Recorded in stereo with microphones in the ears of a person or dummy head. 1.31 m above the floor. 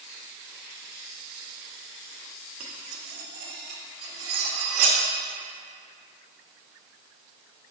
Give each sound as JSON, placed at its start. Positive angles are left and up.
{"t": 2.6, "sound": "cutlery clinking", "side_deg": -55, "distance_m": 1.1}